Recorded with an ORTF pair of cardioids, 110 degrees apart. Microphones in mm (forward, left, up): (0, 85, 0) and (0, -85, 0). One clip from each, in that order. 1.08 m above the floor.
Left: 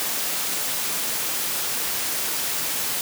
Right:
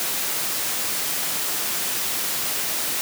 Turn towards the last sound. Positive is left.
No sound to turn to.